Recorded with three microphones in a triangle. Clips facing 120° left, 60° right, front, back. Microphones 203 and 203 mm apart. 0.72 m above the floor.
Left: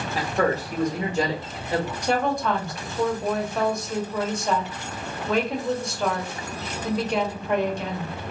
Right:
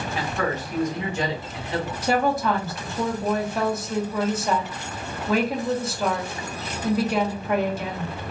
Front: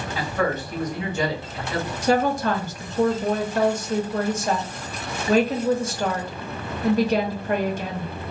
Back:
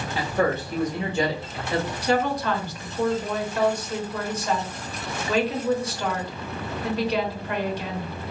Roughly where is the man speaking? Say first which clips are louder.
Left 4 dB, back 1 dB; behind left.